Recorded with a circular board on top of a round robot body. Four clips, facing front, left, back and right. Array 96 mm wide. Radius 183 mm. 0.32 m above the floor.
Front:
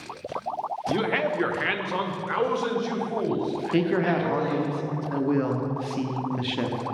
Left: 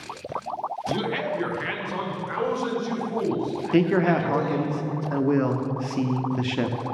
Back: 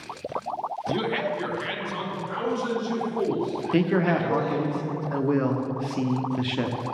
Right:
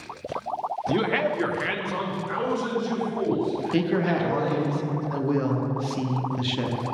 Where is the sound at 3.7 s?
105° left, 1.1 m.